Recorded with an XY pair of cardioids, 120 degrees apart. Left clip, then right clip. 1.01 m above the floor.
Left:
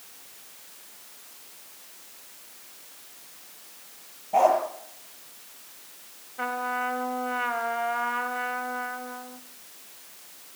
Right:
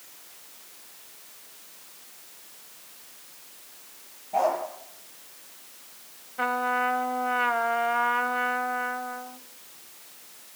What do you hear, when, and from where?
4.3 s a dog barking: 30° left, 8.5 m
6.4 s a trumpet: 25° right, 1.8 m